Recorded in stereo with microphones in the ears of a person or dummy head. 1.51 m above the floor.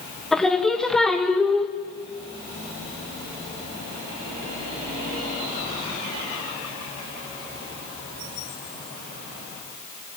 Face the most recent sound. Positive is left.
turn(degrees=5)  # may be behind; listen again after turning